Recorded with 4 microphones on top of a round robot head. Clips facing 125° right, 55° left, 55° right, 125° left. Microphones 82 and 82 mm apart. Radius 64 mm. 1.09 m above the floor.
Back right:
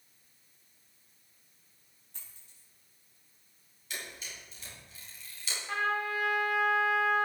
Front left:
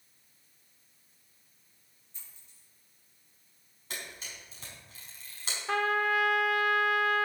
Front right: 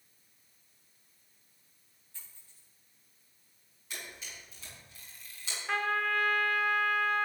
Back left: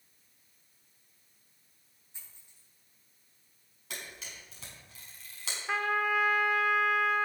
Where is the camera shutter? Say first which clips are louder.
Even, back left 1 dB; 100° left, 5 m.